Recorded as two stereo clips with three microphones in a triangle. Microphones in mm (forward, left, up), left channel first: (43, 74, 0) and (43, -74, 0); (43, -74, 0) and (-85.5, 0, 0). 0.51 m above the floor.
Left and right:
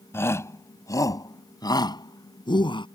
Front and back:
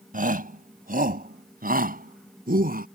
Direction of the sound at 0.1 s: 165° left.